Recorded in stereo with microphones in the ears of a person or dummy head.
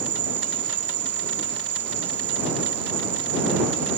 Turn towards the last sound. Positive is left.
turn(degrees=-10)  # may be behind; listen again after turning